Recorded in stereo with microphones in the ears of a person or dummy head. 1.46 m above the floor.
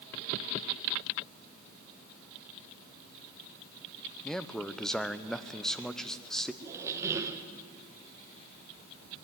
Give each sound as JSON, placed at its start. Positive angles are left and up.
{"t": 4.2, "sound": "a man speaking", "side_deg": 0, "distance_m": 0.8}
{"t": 6.6, "sound": "a squeak", "side_deg": -15, "distance_m": 0.7}